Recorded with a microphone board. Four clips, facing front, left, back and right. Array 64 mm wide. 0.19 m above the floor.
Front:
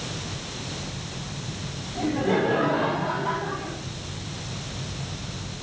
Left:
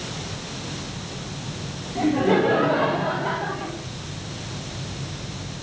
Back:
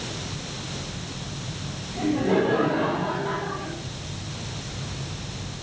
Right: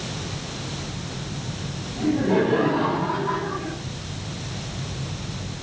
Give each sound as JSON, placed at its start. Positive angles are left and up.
{"t": 1.9, "sound": "laughter", "azimuth_deg": 95, "distance_m": 9.5}